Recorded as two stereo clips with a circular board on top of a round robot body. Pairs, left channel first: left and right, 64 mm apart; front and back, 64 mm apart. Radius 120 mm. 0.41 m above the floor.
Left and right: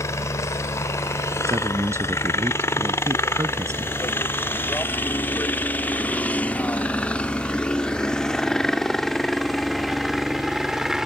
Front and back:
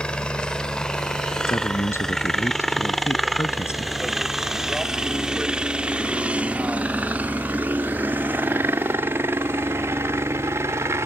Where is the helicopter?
70° left; by 11.1 s 170° right.